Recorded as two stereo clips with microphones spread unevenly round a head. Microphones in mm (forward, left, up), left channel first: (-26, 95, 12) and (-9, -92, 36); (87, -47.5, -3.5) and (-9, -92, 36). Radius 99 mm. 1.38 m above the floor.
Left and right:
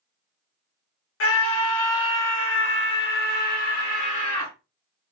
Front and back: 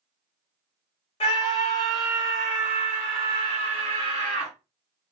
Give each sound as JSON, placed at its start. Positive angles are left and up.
{"t": 1.2, "sound": "a scream", "azimuth_deg": 75, "distance_m": 1.1}